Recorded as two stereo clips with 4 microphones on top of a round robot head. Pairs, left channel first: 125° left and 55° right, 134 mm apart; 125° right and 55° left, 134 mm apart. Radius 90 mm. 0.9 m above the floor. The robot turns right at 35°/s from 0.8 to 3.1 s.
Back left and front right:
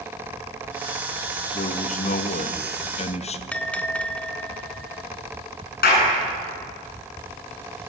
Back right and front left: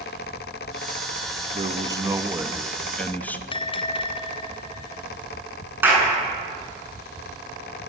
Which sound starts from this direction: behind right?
A bell, at 3.5 s.